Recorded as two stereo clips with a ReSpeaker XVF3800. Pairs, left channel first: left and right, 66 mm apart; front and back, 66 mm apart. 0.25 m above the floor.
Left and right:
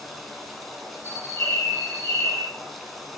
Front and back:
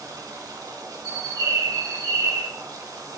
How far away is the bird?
About 4.5 m.